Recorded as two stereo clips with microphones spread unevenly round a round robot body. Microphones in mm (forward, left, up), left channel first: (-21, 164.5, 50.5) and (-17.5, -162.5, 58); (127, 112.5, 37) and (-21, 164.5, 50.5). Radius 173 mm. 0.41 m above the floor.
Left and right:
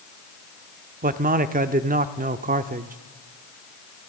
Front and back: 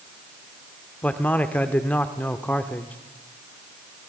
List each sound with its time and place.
1.0 s a man speaking: 75° right, 0.9 m